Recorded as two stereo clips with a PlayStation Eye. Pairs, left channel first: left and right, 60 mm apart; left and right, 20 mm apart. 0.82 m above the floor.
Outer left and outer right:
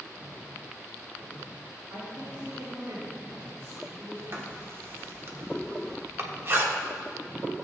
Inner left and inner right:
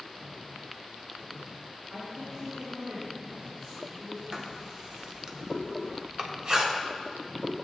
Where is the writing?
40° right (ahead or behind), 1.3 m.